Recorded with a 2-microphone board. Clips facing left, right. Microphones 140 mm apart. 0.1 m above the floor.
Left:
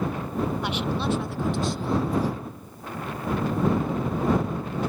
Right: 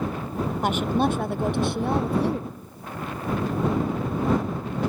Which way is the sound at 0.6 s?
45° right (ahead or behind).